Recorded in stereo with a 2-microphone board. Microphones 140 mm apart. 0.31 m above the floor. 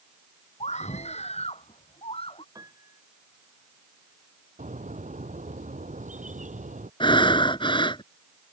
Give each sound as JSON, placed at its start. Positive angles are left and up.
{"t": 0.6, "sound": "a scream", "side_deg": 55}
{"t": 2.5, "sound": "a piano", "side_deg": -25}
{"t": 4.6, "sound": "a bird", "side_deg": -65}
{"t": 7.0, "sound": "breathing", "side_deg": 35}